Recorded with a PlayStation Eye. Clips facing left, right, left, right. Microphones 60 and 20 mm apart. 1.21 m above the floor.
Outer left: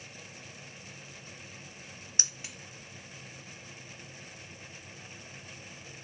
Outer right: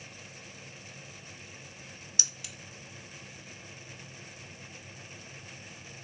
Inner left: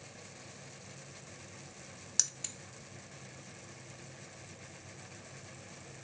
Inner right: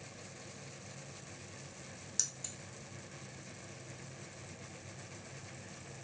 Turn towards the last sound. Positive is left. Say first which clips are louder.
# outer left 2 dB, inner left 5 dB
turn(degrees=30)  # may be behind; listen again after turning